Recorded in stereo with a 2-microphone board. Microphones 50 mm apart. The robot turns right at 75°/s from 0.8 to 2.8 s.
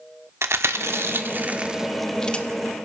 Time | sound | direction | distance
0.4 | chewing | 60° right (ahead or behind) | 1.3 m